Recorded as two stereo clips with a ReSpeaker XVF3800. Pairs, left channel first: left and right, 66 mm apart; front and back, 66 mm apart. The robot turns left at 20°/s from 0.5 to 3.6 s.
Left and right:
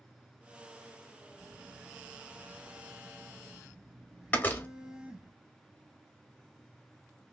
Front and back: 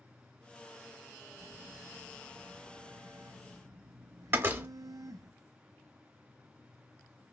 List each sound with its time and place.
1.4 s a phone buzzing: 120° right, 0.7 m; by 5.3 s 165° right, 0.7 m
4.3 s a door slam: 140° left, 0.8 m